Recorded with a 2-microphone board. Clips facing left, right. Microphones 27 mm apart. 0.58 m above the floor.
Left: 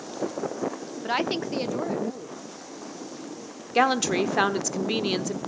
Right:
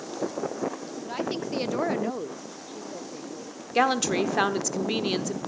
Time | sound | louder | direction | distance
1.0 | a woman speaking | left 5 dB | 50° left (ahead or behind) | 0.8 m
3.8 | a woman speaking | left 1 dB | 5° left (ahead or behind) | 1.1 m